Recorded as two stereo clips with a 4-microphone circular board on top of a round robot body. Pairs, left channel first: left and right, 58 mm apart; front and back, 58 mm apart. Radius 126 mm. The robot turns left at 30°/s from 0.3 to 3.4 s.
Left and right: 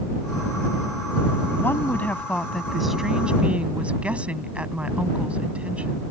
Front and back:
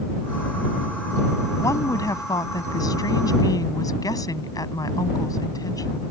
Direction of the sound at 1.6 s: 35° left.